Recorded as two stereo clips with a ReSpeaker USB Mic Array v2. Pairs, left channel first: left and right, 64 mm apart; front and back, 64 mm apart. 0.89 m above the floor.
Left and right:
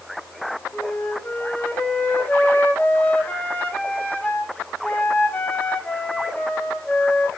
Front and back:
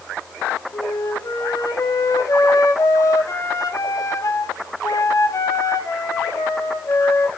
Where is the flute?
25° left, 1.6 m.